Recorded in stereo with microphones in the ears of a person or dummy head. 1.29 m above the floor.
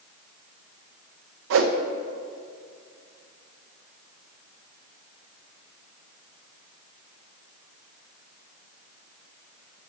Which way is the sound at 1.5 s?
60° right (ahead or behind).